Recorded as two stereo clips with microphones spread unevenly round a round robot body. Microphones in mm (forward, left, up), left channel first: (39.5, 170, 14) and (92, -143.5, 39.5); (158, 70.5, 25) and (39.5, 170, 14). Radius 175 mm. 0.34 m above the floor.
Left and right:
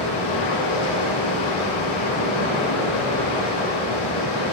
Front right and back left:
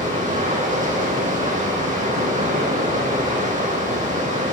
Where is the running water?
100° left, 5.5 m.